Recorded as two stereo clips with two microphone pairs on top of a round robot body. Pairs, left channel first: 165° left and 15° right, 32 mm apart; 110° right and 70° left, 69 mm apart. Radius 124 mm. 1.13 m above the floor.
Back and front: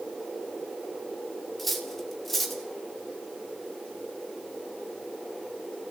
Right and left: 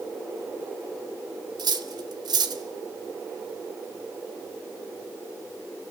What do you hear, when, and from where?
1.6 s cutlery clinking: 80° left, 2 m